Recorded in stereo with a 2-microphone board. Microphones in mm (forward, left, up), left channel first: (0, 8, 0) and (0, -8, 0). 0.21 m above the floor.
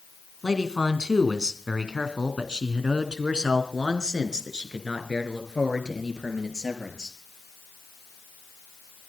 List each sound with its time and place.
0.4 s a man speaking: 50° right (ahead or behind), 2 m; by 7.2 s 40° right (ahead or behind), 4 m